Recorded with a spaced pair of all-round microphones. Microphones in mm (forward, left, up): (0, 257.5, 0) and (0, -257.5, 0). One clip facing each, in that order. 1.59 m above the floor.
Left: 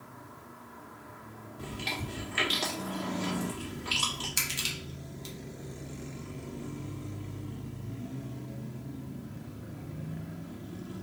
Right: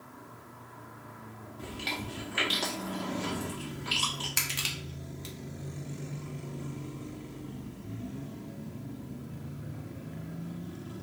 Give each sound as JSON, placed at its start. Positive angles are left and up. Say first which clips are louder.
{"t": 1.6, "sound": "chewing", "louder": "even", "side_deg": -5, "distance_m": 1.2}
{"t": 4.4, "sound": "crushing", "louder": "even", "side_deg": -75, "distance_m": 0.9}